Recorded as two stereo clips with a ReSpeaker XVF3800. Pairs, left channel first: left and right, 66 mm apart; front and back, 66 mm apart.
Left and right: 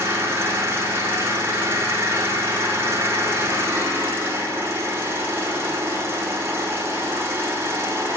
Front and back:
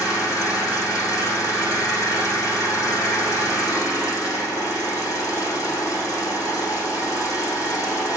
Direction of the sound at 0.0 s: 35° right.